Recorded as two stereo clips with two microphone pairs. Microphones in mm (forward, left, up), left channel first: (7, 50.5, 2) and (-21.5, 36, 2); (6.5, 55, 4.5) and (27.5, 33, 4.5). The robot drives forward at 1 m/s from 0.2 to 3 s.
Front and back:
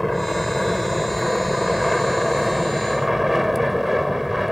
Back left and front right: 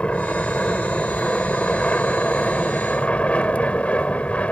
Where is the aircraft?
115° left; by 4.5 s 125° left.